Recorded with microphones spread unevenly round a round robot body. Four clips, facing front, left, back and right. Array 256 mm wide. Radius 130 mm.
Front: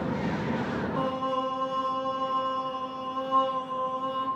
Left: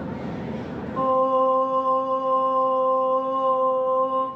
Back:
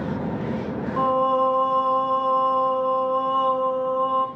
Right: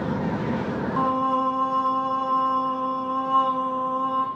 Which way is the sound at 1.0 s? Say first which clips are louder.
Left 4 dB, back 11 dB; 100° right.